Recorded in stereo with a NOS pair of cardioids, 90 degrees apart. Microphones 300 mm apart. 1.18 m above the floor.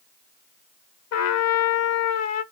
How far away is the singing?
No singing in this recording.